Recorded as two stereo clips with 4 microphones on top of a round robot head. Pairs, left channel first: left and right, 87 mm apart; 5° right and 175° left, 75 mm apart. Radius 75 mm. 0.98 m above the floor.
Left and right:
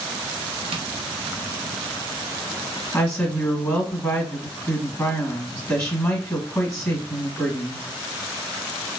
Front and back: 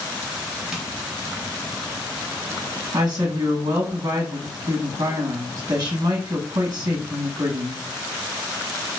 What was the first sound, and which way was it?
Tapping, 105° right.